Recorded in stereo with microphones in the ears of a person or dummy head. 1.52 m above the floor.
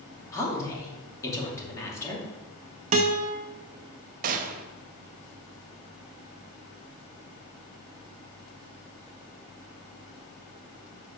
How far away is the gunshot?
About 0.8 m.